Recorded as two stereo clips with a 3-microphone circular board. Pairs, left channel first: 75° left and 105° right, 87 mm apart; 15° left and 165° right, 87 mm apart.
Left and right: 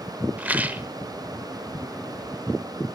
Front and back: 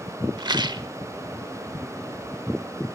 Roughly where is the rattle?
Behind.